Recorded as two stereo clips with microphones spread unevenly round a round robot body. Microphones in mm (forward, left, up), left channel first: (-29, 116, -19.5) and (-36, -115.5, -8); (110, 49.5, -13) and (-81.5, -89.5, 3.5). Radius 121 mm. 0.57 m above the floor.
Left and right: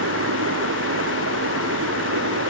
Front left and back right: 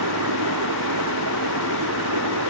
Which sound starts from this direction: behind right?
Running water, at 0.0 s.